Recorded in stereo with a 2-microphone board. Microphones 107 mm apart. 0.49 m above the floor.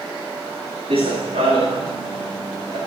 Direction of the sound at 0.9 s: 75° right (ahead or behind).